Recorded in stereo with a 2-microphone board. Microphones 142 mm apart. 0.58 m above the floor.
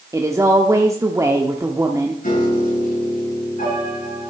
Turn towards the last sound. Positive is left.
turn(degrees=80)